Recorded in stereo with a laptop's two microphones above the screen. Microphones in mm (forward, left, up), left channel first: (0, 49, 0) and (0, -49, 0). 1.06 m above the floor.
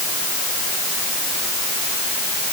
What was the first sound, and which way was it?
Only background noise.